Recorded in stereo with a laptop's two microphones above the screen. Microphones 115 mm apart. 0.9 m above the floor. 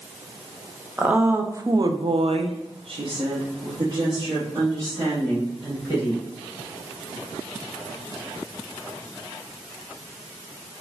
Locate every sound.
1.0 s a woman speaking: 15° right (ahead or behind), 0.8 m; by 6.2 s 30° right (ahead or behind), 2 m